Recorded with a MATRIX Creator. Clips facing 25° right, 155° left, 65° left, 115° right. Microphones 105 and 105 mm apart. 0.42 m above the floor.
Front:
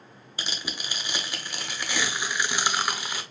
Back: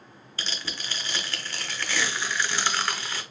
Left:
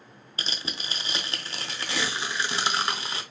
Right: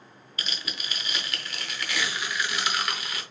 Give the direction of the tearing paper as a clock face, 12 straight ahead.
11 o'clock.